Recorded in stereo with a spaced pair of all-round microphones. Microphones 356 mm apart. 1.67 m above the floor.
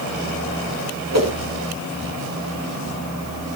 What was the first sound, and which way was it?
A whoosh, 45° right (ahead or behind).